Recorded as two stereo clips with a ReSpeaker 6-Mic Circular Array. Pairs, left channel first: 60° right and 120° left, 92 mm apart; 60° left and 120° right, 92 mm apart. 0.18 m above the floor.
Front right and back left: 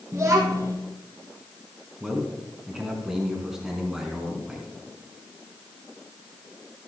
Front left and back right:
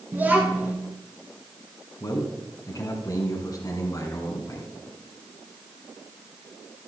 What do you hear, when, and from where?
0.1 s a child speaking: 175° left, 1.4 m
2.0 s a man speaking: 35° left, 2 m